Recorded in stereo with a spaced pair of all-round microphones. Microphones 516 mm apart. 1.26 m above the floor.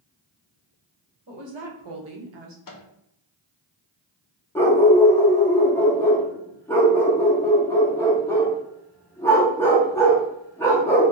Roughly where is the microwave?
Left.